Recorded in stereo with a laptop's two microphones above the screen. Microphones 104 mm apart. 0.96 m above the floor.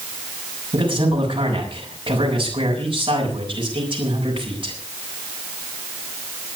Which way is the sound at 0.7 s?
50° right (ahead or behind).